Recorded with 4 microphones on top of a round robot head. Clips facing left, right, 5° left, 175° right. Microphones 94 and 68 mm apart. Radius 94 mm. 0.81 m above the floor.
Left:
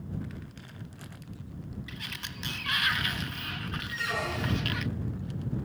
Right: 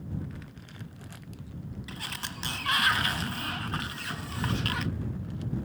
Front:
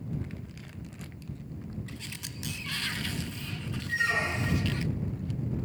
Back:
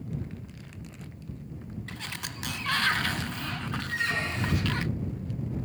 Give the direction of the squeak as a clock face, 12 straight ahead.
9 o'clock.